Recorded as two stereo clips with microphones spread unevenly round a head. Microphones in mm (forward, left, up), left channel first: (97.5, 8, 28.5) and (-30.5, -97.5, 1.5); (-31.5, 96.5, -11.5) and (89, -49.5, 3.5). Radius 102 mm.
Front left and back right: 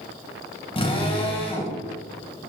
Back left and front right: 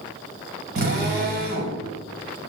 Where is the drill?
20° right, 6 m.